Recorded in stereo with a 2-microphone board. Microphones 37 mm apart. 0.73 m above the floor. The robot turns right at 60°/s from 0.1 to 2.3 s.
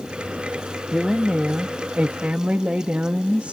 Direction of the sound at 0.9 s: 160° right.